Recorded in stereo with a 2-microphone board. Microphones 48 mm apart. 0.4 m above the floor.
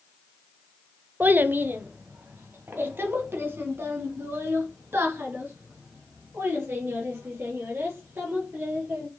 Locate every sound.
1.2 s a child speaking: 40° right (ahead or behind), 0.6 m; by 9.1 s 55° right (ahead or behind), 5.5 m